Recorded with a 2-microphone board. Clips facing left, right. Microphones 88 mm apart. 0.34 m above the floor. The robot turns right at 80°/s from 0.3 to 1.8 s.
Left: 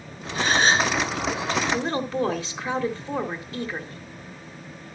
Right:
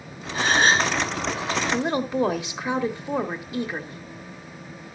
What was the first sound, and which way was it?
A gasp, 90° right.